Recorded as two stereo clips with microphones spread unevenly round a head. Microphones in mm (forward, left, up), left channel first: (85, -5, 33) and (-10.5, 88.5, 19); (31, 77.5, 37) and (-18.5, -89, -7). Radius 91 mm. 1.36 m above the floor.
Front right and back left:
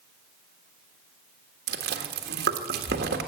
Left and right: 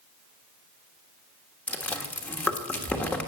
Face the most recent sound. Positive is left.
turn(degrees=155)